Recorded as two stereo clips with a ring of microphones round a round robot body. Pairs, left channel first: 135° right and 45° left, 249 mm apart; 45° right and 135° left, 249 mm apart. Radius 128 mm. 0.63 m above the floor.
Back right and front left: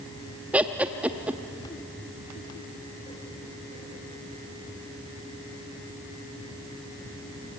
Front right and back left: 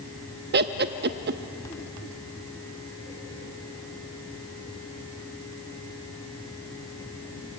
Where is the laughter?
125° left, 0.8 m.